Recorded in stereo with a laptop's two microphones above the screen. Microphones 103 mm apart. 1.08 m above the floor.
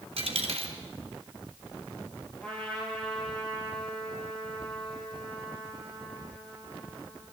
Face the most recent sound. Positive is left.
turn(degrees=10)  # may be behind; listen again after turning